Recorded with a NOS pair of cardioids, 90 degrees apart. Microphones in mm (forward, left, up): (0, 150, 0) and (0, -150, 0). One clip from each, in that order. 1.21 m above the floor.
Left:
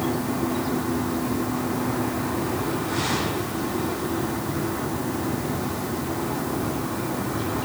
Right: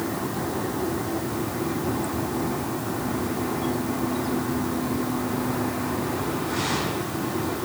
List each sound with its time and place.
Only background noise.